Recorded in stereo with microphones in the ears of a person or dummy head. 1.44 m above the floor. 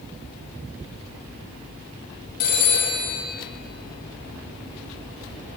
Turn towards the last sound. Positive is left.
turn(degrees=50)  # may be behind; listen again after turning